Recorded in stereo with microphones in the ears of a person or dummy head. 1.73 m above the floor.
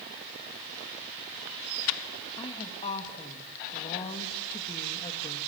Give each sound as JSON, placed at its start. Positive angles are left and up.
{"t": 2.4, "sound": "a woman speaking", "side_deg": 30, "distance_m": 2.5}